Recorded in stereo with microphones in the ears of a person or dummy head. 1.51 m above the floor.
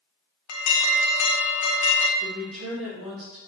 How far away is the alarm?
About 0.6 m.